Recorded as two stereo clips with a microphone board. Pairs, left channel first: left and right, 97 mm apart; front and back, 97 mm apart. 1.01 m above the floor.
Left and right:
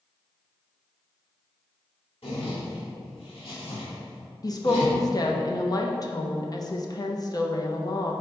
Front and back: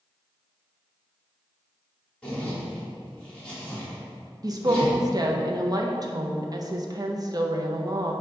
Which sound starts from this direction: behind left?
A woman speaking, at 4.4 s.